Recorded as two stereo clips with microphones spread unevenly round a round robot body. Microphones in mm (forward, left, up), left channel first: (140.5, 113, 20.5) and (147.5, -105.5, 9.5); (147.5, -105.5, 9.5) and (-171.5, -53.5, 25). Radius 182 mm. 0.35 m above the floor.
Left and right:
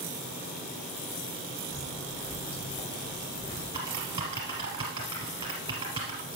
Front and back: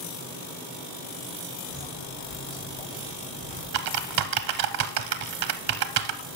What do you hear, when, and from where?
1.7 s footsteps: 75° left, 4 m; by 3.6 s 60° left, 3 m
3.7 s typing on a keyboard: 165° right, 0.6 m